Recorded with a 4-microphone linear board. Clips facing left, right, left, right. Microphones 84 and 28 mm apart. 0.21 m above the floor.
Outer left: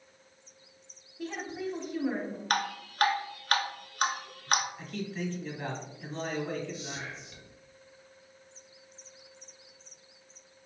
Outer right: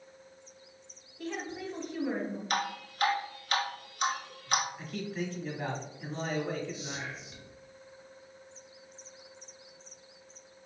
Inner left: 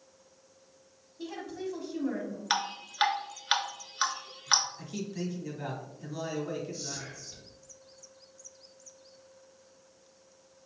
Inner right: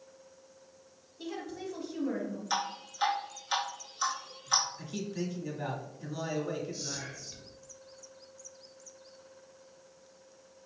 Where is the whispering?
20° right (ahead or behind), 1.8 m.